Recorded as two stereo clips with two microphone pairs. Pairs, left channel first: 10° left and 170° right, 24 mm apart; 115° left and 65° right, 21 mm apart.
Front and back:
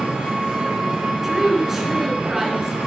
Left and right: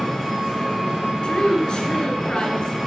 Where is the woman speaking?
120° left, 1.9 m.